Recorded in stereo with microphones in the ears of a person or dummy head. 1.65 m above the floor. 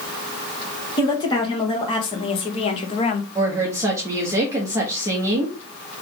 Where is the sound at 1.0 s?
30° left (ahead or behind), 2.0 m; by 3.2 s 40° left (ahead or behind), 0.8 m.